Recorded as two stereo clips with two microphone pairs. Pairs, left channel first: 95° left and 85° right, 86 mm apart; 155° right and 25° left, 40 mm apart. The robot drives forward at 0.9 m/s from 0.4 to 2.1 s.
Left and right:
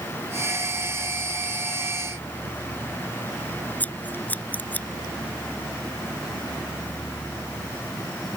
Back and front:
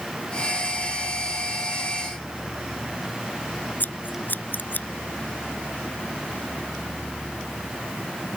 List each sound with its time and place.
3.8 s scissors: 165° left